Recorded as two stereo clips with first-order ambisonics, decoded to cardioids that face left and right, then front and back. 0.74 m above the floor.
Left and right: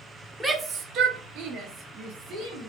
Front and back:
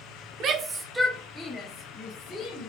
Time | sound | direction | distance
0.4 | a shout | 165° right | 0.5 m